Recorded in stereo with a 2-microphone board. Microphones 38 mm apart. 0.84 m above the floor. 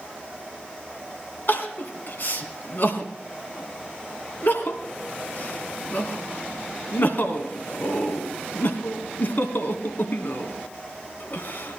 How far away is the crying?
About 1.8 m.